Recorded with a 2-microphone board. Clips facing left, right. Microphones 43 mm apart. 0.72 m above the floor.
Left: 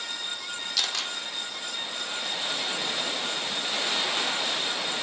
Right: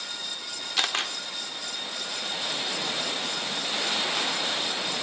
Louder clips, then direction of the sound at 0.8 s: Right 4 dB; 40° right (ahead or behind).